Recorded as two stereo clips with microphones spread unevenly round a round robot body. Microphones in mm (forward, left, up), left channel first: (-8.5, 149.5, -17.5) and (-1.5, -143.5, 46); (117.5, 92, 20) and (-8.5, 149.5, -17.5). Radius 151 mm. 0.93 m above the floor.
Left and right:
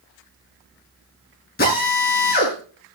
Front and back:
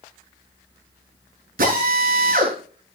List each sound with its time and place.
1.6 s a drill: 150° left, 9 m